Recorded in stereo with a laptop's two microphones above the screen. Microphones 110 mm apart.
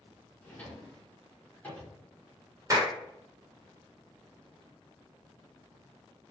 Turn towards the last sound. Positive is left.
turn(degrees=-25)  # may be behind; listen again after turning